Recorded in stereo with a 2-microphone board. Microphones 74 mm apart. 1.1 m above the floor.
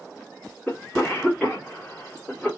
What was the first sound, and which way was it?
A cough, 10° left (ahead or behind).